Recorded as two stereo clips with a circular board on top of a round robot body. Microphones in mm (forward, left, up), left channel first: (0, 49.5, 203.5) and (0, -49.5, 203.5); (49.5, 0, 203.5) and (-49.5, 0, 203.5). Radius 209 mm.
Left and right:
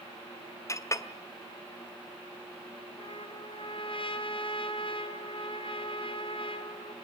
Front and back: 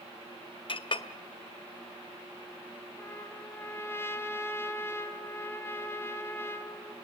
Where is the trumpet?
65° left, 3 m.